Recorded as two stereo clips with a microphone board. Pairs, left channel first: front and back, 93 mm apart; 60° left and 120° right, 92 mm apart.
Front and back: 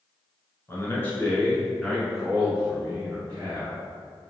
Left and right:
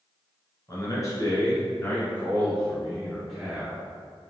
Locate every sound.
0.7 s a man speaking: 45° left, 1.8 m; by 3.9 s 170° left, 1.8 m